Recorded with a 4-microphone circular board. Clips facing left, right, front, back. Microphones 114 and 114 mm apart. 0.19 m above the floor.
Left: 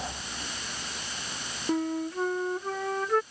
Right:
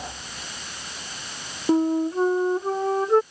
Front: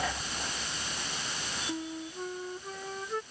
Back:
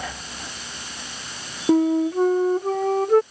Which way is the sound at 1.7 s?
150° right.